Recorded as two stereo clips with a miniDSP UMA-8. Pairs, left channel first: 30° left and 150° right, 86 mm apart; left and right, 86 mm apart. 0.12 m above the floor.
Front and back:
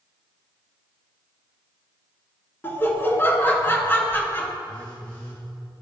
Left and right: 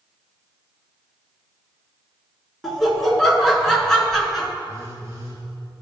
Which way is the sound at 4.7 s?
50° right.